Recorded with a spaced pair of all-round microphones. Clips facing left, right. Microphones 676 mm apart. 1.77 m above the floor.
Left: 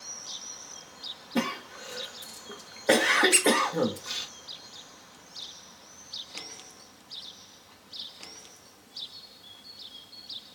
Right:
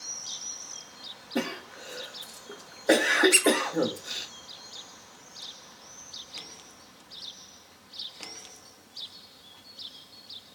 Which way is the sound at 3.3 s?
15° right (ahead or behind).